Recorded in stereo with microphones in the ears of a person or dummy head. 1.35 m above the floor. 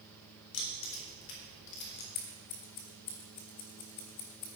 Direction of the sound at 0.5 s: 80° left.